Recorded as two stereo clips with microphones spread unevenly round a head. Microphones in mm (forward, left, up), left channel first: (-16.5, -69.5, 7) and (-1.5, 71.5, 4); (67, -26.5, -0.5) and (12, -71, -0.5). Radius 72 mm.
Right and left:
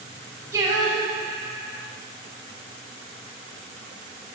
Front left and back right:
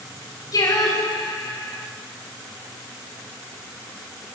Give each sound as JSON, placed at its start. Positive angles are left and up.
{"t": 0.5, "sound": "singing", "azimuth_deg": 10, "distance_m": 3.5}